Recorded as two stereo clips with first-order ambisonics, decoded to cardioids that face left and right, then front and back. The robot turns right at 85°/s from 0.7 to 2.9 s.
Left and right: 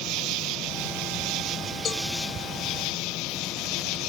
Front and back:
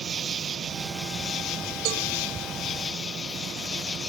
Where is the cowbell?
150° left; by 2.0 s 165° left.